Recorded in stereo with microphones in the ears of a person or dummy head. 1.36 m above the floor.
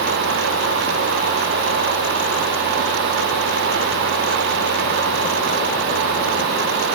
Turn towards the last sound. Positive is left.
No sound to turn to.